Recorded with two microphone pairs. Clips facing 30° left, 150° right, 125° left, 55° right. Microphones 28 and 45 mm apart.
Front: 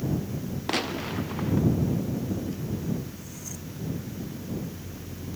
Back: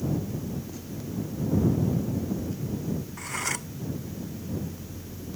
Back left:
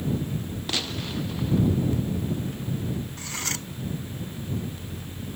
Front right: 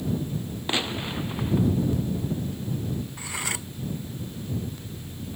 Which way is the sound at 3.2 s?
130° right.